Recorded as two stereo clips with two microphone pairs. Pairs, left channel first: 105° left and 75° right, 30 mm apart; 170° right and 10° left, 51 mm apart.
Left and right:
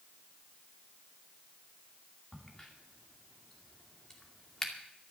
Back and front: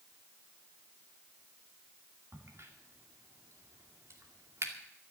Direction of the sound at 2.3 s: 35° left.